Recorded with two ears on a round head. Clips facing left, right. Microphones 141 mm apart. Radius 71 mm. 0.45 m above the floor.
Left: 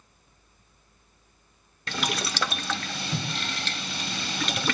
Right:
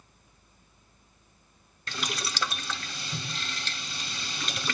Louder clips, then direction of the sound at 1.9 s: Left 5 dB; 50° left (ahead or behind).